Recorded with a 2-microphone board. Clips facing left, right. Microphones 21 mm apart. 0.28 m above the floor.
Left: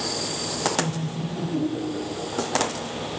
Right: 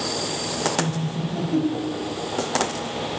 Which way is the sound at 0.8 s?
60° right (ahead or behind).